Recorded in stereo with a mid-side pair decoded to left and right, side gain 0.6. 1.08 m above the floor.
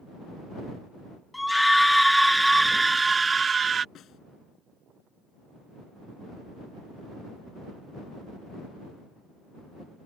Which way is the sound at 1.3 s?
5° left.